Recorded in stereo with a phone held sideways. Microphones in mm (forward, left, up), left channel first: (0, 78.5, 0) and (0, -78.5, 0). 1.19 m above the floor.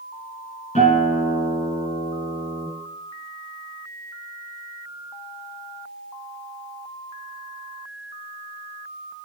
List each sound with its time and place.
0.8 s a guitar: 45° left (ahead or behind), 9 m